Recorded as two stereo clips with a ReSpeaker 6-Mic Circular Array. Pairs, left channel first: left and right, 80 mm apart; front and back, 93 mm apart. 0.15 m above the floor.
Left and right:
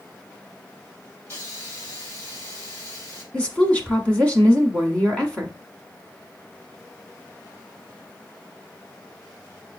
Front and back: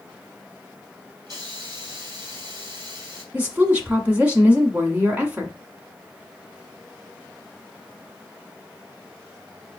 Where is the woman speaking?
140° left, 1.1 m.